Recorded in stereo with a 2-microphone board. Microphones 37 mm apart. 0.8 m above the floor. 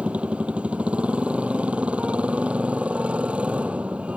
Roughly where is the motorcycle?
Right.